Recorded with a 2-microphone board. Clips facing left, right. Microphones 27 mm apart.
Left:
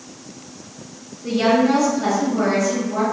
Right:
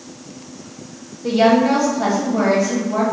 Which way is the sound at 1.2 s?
45° right (ahead or behind).